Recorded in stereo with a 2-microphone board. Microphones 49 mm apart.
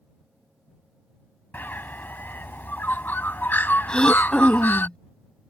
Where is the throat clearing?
15° left (ahead or behind).